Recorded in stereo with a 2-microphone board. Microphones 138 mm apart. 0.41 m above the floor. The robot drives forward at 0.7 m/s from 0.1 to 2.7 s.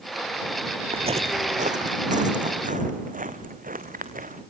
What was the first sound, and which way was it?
Footsteps, 45° right (ahead or behind).